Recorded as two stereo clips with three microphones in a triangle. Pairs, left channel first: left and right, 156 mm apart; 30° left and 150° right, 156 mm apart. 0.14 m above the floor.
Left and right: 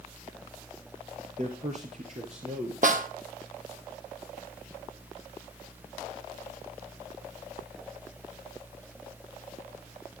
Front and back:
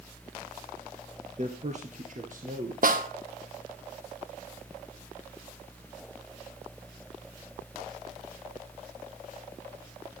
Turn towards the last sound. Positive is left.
turn(degrees=-125)